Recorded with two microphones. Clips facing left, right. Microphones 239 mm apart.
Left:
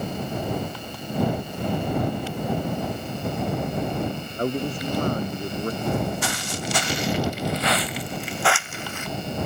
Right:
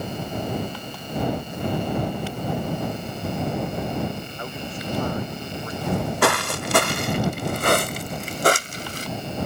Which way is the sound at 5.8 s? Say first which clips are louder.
Right 7 dB; 75° right (ahead or behind).